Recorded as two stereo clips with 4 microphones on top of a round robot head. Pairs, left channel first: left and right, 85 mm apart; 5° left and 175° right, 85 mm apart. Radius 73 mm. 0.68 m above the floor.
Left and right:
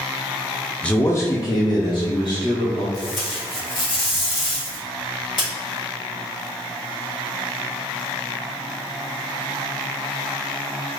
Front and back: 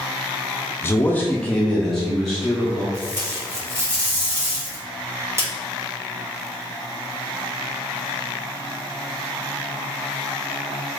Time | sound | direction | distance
0.8 | a man speaking | 25° left | 0.6 m
2.9 | tape being pulled | 125° left | 1.7 m